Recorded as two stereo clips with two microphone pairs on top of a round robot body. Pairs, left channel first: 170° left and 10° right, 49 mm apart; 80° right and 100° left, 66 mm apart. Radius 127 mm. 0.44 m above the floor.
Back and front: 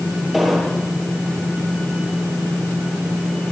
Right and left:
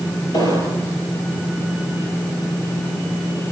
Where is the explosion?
100° right, 9.5 m.